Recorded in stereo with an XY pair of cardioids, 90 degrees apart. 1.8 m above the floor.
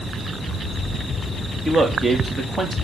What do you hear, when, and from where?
1.6 s a man speaking: 35° right, 3 m